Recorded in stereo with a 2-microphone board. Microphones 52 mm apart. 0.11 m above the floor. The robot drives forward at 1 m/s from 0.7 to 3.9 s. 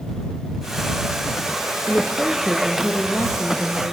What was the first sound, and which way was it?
A woman speaking, 35° left (ahead or behind).